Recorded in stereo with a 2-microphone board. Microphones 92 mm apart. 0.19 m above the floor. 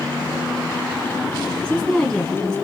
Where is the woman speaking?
15° left (ahead or behind), 1.4 m.